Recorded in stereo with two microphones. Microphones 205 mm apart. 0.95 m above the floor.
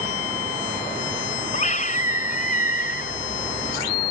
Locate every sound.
1.5 s a scream: 40° left (ahead or behind); by 3.2 s 50° left (ahead or behind)